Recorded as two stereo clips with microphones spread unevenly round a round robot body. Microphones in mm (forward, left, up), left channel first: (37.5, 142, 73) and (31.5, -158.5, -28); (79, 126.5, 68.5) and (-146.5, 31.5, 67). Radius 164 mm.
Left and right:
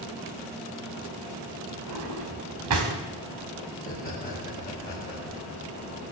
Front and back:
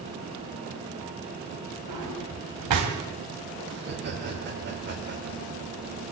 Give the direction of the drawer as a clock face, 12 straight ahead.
5 o'clock.